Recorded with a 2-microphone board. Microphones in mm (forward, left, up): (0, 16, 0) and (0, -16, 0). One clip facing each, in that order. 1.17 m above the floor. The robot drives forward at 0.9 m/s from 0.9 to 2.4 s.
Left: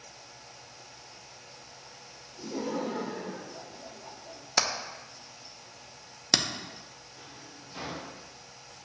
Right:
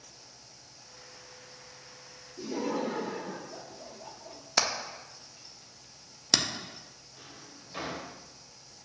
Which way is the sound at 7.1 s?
35° right (ahead or behind).